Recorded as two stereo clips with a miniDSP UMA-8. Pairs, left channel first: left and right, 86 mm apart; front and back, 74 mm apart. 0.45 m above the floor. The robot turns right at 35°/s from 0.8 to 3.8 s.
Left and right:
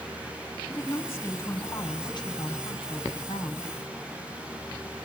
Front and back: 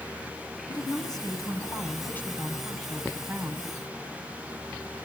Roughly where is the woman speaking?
Ahead.